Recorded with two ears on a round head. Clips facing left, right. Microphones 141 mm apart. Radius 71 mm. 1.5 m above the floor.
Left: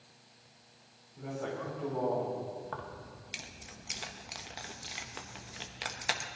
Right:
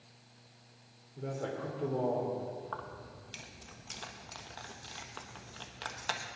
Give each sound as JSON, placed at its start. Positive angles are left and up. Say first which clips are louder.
{"t": 1.2, "sound": "a man speaking", "louder": "even", "side_deg": -40, "distance_m": 4.0}
{"t": 2.6, "sound": "keys jangling", "louder": "left 1 dB", "side_deg": 15, "distance_m": 1.0}